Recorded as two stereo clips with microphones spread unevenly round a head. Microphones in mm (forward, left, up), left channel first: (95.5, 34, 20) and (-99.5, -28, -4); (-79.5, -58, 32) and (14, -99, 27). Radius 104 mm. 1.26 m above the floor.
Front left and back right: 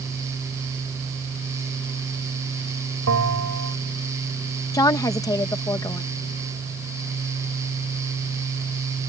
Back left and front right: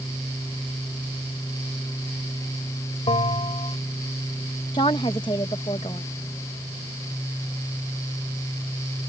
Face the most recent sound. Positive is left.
turn(degrees=95)